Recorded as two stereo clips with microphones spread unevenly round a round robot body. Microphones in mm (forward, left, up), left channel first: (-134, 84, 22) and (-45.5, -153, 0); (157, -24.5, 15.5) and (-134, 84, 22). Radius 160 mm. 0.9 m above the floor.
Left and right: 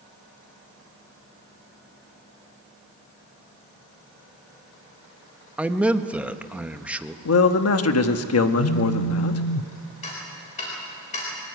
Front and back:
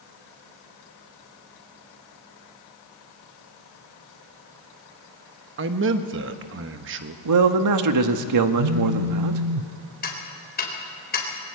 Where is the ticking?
40° left, 4 m.